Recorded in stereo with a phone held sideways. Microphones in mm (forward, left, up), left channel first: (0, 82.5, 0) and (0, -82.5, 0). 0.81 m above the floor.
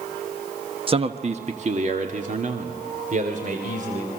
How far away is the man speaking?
About 1.1 m.